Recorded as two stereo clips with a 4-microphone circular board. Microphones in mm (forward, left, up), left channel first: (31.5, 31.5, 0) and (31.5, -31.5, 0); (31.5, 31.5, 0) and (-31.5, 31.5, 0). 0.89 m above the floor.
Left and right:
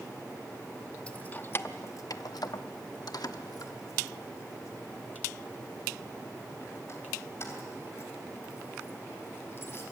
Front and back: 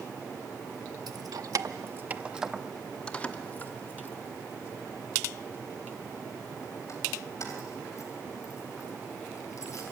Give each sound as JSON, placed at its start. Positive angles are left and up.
{"t": 1.1, "sound": "keys jangling", "azimuth_deg": 160, "distance_m": 0.8}